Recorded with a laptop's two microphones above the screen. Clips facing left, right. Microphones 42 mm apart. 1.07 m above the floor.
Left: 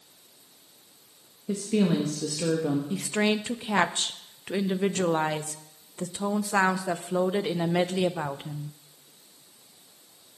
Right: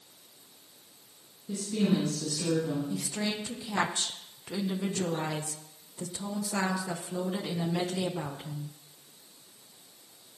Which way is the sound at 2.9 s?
45° left (ahead or behind).